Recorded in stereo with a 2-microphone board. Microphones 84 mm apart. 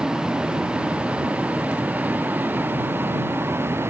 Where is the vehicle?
10° right (ahead or behind); by 3.9 s 30° right (ahead or behind).